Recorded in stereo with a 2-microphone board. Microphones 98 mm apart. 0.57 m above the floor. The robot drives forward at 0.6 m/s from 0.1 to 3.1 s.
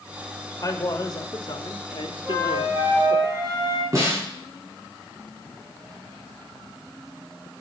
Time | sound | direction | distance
0.6 | a man speaking | 40° left (ahead or behind) | 1.8 m
2.2 | a flute | 35° right (ahead or behind) | 3.5 m
3.9 | a snare drum | 35° right (ahead or behind) | 6 m